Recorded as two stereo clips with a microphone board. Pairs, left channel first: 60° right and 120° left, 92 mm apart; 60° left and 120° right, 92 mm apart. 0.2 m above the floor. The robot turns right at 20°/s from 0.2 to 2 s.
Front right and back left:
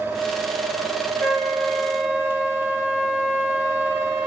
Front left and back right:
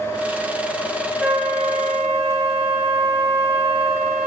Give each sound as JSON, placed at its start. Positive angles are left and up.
{"t": 1.2, "sound": "a flute", "azimuth_deg": 5, "distance_m": 1.8}